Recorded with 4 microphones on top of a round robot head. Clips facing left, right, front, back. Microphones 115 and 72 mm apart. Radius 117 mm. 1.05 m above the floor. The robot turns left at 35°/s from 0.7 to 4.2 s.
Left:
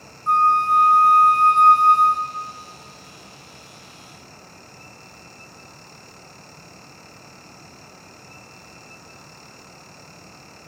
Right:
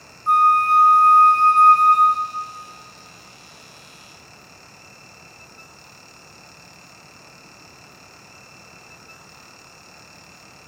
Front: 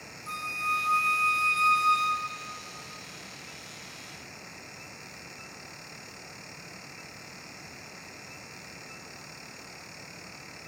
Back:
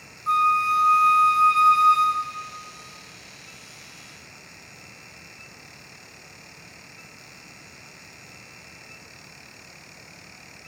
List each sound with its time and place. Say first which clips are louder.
0.3 s a flute: right 1 dB, back 13 dB; 170° right, 1.1 m; by 2.5 s 125° left, 1.1 m